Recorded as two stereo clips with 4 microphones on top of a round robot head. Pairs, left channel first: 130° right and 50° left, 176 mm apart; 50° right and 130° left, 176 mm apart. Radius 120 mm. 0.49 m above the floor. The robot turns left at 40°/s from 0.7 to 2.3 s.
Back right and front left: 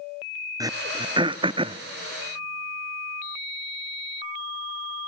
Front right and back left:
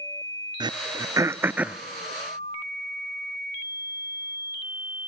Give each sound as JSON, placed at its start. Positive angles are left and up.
{"t": 0.6, "sound": "throat clearing", "azimuth_deg": 95, "distance_m": 0.5}